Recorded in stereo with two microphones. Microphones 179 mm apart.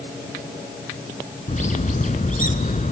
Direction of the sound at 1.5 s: 45° left (ahead or behind).